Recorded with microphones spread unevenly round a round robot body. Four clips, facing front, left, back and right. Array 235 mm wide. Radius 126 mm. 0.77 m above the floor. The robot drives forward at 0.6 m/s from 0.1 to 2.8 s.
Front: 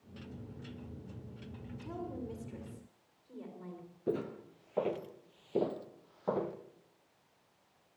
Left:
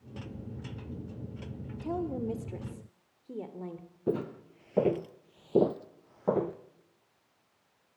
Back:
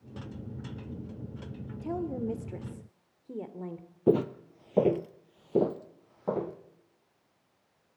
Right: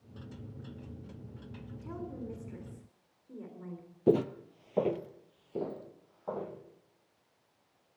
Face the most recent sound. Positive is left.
turn(degrees=95)